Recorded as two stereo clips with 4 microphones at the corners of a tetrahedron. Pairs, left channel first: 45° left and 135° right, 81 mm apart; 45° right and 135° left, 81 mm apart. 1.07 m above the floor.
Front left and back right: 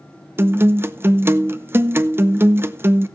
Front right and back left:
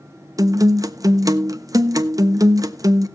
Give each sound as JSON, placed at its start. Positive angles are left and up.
{"t": 0.4, "sound": "a guitar", "azimuth_deg": 170, "distance_m": 0.6}